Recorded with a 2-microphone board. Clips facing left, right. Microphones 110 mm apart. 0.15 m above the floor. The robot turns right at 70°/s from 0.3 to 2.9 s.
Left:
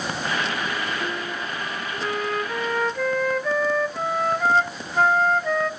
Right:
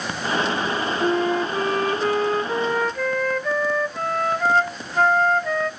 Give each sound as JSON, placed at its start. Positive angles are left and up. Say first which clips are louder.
{"t": 1.0, "sound": "a flute", "louder": "right 9 dB", "azimuth_deg": -130, "distance_m": 0.5}